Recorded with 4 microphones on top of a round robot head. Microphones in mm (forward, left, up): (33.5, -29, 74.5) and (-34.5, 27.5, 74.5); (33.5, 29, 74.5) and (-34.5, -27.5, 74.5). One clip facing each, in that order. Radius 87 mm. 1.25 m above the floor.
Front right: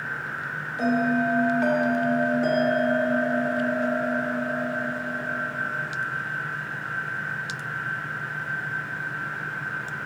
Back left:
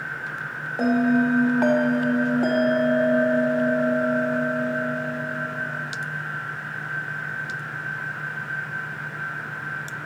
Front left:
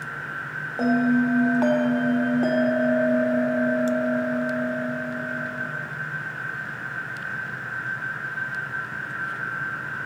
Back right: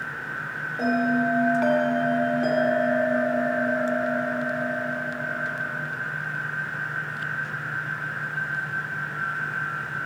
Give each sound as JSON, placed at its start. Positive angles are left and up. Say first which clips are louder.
{"t": 0.8, "sound": "a bell", "louder": "back left 3 dB, front left 2 dB", "azimuth_deg": 95, "distance_m": 0.9}